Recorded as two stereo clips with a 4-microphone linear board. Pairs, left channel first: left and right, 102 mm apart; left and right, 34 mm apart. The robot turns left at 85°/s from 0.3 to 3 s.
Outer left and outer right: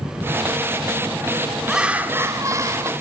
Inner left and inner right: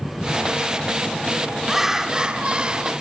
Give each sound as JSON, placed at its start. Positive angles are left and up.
{"t": 1.7, "sound": "laughter", "azimuth_deg": -5, "distance_m": 1.9}